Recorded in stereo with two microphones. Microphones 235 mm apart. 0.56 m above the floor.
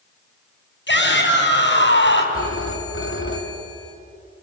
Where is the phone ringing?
60° left (ahead or behind), 3 m.